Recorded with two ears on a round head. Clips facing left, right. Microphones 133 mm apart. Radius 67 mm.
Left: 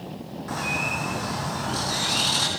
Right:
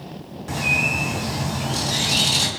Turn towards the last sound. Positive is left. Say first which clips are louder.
# right 3 dB
turn(degrees=-30)  # may be behind; listen again after turning